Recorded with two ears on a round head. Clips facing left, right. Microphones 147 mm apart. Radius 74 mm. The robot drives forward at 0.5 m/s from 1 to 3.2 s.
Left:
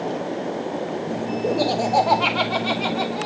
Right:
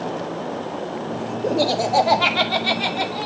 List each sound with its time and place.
1.4 s laughter: 10° right (ahead or behind), 3 m; by 3.3 s 5° right (ahead or behind), 3.5 m